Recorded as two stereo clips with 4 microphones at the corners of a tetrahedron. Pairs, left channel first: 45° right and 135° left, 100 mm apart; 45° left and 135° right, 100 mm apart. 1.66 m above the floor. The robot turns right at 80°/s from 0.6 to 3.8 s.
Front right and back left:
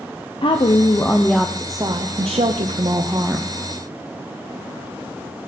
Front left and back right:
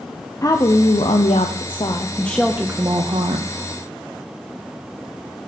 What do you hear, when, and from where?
0.4 s a woman speaking: 15° right, 0.8 m; by 3.5 s 140° right, 0.8 m